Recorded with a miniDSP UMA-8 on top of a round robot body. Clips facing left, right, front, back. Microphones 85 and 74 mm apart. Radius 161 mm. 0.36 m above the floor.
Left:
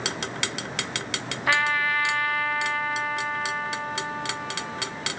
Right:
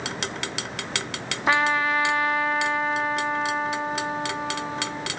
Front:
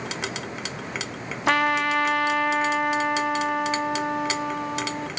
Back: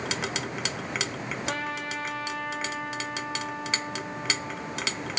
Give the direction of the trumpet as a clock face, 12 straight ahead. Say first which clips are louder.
Right 2 dB, front 14 dB; 1 o'clock.